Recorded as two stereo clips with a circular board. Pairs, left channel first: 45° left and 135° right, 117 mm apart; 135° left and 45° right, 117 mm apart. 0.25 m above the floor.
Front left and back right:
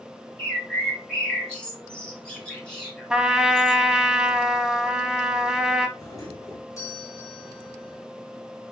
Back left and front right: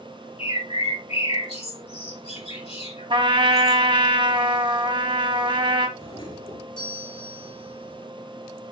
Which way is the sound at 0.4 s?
125° left.